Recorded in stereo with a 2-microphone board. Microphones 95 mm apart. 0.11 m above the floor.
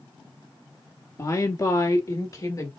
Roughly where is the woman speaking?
Left.